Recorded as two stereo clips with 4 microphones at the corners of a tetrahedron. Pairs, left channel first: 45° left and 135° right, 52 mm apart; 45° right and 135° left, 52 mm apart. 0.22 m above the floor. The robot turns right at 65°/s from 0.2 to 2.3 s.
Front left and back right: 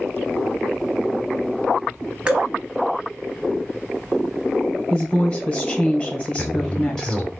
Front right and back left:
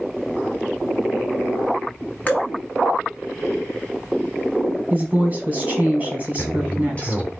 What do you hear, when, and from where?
2.3 s dripping: 75° right, 0.8 m; by 2.5 s 70° right, 0.8 m
4.9 s a woman speaking: 95° left, 1.2 m
6.4 s a man speaking: 20° right, 1.5 m